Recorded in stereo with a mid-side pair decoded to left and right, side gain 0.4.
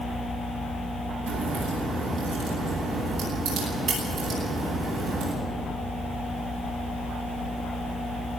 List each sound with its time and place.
1.3 s a crack: 65° right, 10 m